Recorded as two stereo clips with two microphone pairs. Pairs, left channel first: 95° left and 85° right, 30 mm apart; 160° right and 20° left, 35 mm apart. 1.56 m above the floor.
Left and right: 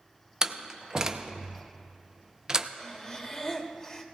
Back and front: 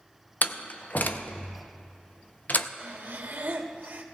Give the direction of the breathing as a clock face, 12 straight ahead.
11 o'clock.